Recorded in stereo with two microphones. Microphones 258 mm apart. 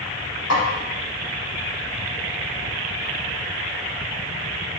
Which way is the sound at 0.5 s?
80° left.